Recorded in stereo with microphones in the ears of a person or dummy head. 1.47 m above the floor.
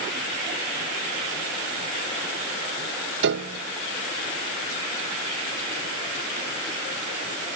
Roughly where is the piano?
Right.